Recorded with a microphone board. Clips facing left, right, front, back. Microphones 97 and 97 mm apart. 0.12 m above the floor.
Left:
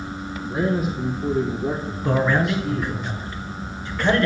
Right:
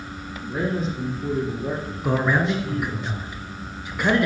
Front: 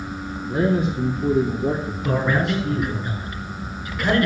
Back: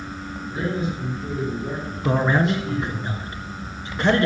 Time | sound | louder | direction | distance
0.5 | a man speaking | left 3 dB, front 6 dB | straight ahead | 3 m
2.0 | a man speaking | left 1 dB, back 2 dB | 155° right | 1.9 m